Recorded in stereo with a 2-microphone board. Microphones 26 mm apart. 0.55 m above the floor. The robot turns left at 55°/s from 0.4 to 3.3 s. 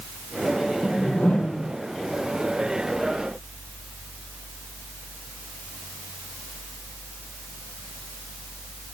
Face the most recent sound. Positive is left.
turn(degrees=-10)